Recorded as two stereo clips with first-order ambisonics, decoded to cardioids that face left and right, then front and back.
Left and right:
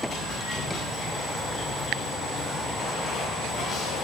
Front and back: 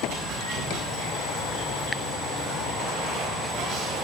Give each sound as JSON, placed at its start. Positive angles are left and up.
{"t": 0.0, "sound": "running water", "azimuth_deg": 150, "distance_m": 7.0}